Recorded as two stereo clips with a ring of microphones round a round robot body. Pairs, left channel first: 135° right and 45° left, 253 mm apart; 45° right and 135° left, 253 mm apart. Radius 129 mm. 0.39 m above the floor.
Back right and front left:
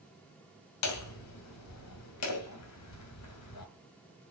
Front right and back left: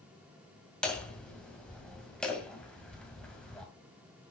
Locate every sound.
0.8 s hammering: 130° right, 2 m